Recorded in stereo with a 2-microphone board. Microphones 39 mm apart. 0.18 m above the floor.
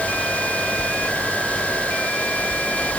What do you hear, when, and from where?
Only background noise.